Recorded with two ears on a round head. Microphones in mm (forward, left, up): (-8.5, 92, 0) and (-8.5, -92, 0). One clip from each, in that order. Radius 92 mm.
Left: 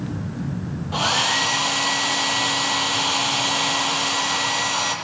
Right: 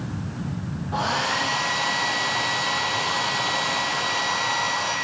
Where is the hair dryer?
80° left, 6.5 m.